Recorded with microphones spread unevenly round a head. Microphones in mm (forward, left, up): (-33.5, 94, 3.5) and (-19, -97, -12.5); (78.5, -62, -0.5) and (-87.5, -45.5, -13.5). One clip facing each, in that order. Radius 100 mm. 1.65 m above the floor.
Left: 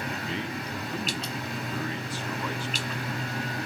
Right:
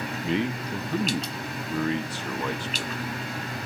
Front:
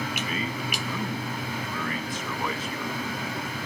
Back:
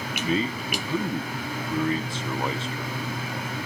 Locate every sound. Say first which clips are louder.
0.2 s a man speaking: right 6 dB, back 5 dB; 120° right, 0.9 m